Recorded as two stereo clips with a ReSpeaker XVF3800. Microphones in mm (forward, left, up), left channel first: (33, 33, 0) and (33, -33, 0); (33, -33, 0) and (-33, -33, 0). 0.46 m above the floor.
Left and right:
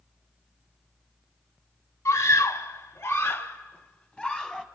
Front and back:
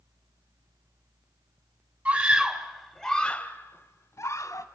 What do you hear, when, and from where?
2.0 s a scream: 135° left, 1.5 m; by 4.7 s 10° right, 1.6 m